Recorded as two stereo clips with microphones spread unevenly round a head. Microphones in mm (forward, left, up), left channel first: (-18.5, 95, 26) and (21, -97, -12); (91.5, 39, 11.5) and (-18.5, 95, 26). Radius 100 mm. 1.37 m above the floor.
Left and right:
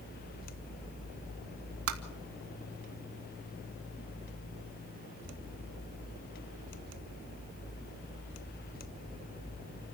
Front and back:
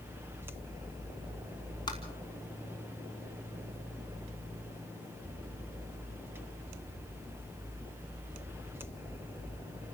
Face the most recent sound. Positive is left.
turn(degrees=-95)